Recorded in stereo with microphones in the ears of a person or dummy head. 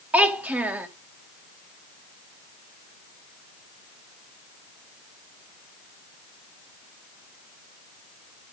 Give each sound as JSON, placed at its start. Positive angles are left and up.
{"t": 0.1, "sound": "a child speaking", "side_deg": -5, "distance_m": 1.0}